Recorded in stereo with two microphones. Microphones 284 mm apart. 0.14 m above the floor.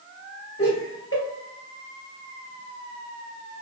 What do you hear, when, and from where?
0.6 s laughter: 45° left (ahead or behind), 2.0 m